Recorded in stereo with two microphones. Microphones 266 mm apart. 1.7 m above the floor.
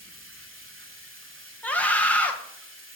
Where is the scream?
5° left (ahead or behind), 1.4 m.